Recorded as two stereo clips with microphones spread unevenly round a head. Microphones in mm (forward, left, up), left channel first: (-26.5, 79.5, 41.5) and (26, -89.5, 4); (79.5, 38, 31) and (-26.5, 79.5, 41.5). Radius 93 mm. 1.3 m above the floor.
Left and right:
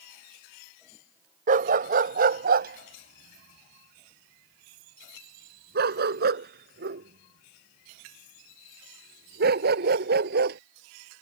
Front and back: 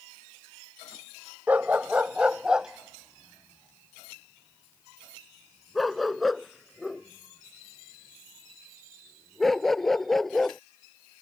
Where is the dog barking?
125° right; by 10.6 s 110° right.